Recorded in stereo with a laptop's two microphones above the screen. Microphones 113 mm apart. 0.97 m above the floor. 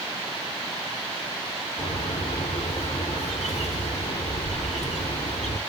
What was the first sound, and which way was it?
A bird, 85° left.